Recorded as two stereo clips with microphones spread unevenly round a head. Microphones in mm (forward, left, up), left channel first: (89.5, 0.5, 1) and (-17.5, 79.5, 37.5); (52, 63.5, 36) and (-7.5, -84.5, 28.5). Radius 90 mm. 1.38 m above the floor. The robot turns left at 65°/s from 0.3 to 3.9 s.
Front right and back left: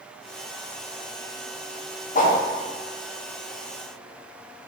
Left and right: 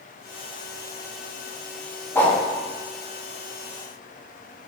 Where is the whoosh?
5° right, 1.1 m; by 2.4 s 20° right, 1.1 m.